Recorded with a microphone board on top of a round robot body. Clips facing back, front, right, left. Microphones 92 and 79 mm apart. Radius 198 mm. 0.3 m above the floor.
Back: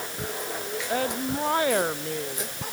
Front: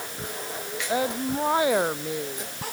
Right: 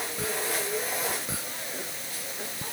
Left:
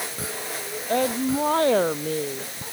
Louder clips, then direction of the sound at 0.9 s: Front 2 dB, left 10 dB; 80° left.